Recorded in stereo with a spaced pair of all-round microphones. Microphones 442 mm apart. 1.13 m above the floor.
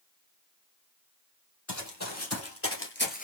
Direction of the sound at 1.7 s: 40° left (ahead or behind).